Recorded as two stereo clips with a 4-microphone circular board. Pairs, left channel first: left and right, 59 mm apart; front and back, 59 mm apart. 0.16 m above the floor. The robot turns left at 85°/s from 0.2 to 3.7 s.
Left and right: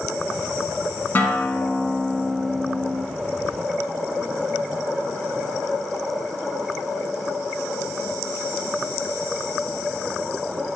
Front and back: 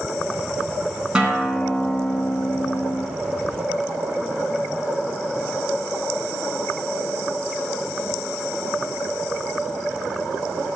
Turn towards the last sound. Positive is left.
turn(degrees=-105)